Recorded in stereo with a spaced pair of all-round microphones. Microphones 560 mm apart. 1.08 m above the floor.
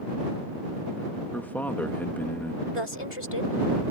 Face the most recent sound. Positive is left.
turn(degrees=60)  # may be behind; listen again after turning